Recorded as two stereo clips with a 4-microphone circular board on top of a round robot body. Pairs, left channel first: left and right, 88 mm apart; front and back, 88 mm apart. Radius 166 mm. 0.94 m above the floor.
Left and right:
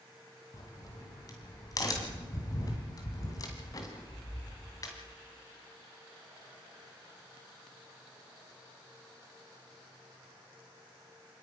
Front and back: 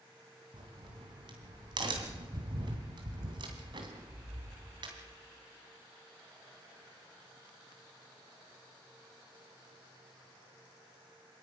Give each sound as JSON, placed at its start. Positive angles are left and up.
{"t": 0.5, "sound": "a crack", "azimuth_deg": 140, "distance_m": 2.0}